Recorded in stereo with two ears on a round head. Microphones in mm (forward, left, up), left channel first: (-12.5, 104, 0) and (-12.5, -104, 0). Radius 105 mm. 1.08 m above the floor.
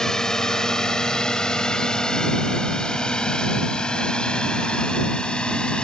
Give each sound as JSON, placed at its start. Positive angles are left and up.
{"t": 0.0, "sound": "a drone", "side_deg": 5}